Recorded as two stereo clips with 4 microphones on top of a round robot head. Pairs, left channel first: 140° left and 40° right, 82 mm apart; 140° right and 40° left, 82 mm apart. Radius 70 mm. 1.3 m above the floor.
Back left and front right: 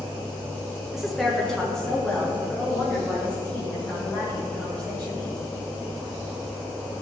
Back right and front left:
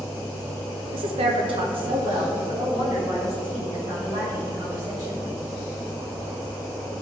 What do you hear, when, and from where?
0.9 s a woman speaking: 45° left, 0.6 m; by 5.2 s 60° left, 5 m